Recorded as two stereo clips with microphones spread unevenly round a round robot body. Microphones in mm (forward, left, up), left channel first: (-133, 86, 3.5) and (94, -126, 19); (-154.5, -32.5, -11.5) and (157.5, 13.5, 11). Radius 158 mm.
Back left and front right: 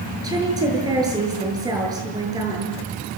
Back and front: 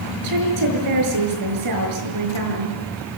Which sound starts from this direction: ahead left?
A woman speaking, at 0.2 s.